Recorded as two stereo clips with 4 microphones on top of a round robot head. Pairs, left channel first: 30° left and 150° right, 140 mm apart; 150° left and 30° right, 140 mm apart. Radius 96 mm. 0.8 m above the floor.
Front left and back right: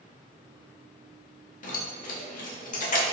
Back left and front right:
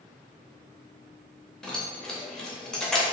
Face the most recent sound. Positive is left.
turn(degrees=65)